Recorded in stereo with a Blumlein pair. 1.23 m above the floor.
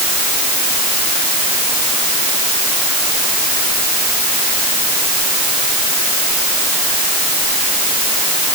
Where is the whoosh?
No whoosh in this recording.